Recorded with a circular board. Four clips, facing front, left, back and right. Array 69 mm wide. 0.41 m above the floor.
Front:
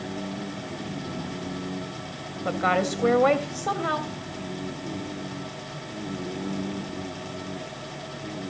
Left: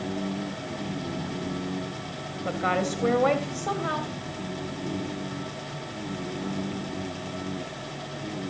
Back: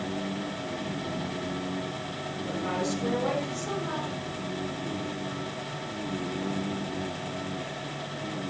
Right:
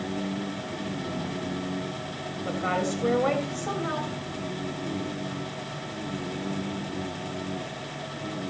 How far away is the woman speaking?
About 1.9 m.